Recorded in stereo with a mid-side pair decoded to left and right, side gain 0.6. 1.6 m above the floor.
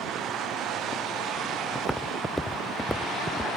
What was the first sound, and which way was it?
Footsteps, straight ahead.